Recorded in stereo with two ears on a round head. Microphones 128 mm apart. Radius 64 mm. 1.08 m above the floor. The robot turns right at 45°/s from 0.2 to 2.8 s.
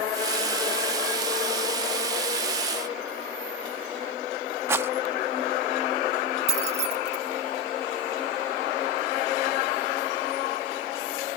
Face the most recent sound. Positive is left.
turn(degrees=-50)  # may be behind; listen again after turning